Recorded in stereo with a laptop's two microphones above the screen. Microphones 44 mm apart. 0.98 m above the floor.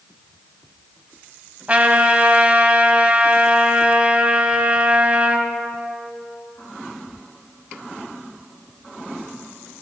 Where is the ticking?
No ticking in this recording.